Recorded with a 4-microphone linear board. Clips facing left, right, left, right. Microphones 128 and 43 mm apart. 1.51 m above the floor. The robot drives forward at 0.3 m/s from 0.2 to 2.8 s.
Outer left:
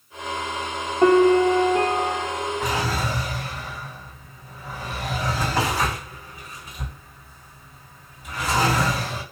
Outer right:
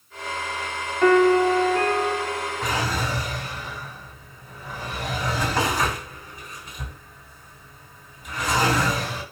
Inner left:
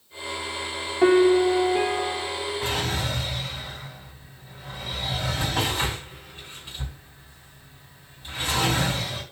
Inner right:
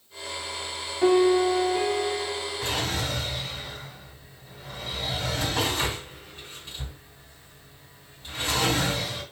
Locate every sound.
1.0 s a piano: 30° left (ahead or behind), 0.6 m; by 3.0 s 20° left (ahead or behind), 1.0 m
2.6 s a drawer: 5° left (ahead or behind), 2.5 m